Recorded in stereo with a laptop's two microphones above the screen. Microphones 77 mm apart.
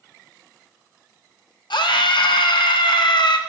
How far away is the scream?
About 1.2 m.